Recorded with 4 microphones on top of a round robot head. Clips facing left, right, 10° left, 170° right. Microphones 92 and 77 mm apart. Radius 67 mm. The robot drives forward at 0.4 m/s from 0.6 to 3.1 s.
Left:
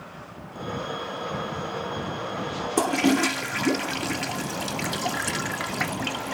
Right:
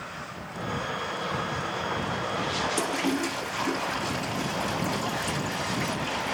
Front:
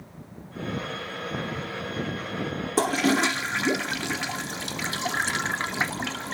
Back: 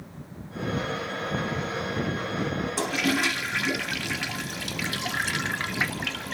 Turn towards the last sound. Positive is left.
turn(degrees=70)